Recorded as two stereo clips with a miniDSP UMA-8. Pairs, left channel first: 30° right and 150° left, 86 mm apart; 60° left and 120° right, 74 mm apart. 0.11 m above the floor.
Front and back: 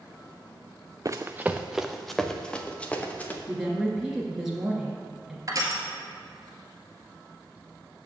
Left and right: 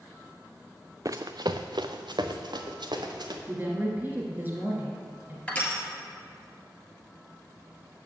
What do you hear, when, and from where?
1.1 s running footsteps: 165° right, 0.6 m; by 3.4 s 100° right, 1.8 m
3.5 s a woman speaking: 135° right, 1.8 m
5.5 s crushing: 130° left, 1.6 m